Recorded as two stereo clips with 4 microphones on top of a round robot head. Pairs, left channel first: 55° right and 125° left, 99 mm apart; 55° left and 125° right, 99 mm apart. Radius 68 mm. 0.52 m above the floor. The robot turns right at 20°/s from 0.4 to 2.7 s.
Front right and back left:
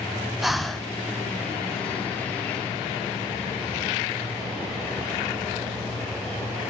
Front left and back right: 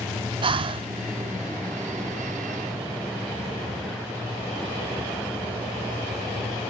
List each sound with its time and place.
0.4 s breathing: 145° right, 0.8 m; by 0.9 s 140° right, 0.8 m